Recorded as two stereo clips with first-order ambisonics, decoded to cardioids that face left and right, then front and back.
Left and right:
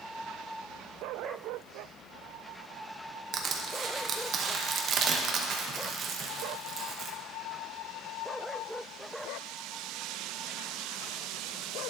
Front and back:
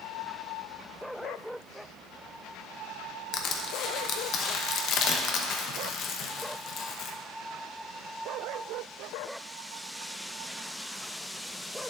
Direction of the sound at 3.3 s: 40° right.